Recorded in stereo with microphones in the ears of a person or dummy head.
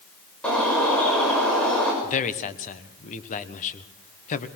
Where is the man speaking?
40° left (ahead or behind), 1.3 m.